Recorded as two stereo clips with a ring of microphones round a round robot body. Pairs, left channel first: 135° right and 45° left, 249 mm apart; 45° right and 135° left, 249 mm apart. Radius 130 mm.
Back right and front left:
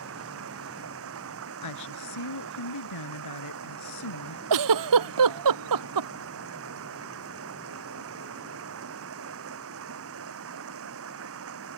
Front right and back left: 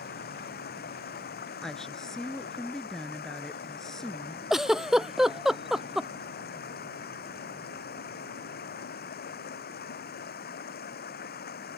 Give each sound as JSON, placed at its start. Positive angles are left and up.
{"t": 0.0, "sound": "running water", "azimuth_deg": 10}
{"t": 1.6, "sound": "a woman speaking", "azimuth_deg": -135}
{"t": 4.5, "sound": "a giggle", "azimuth_deg": 45}